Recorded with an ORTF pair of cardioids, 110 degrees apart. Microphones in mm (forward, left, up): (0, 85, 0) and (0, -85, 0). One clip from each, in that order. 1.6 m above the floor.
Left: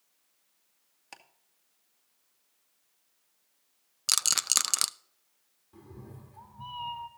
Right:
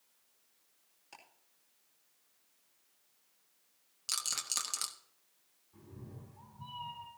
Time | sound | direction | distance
1.1 | ticking | 60° left | 2 m
4.1 | a rattle | 50° left | 0.6 m
5.7 | a cat meowing | 65° left | 3 m